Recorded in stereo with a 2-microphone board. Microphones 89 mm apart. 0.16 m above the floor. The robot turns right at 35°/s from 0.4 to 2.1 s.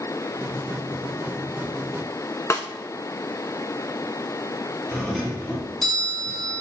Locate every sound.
2.5 s a snare drum: 35° left (ahead or behind), 0.7 m
4.9 s a doorbell: 5° left (ahead or behind), 2.5 m